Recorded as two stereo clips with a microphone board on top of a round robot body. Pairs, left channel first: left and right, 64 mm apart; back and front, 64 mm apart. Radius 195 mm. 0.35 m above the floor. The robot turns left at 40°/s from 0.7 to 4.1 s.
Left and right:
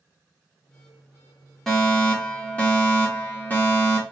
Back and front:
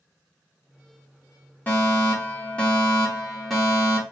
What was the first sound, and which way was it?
A fire alarm, 165° left.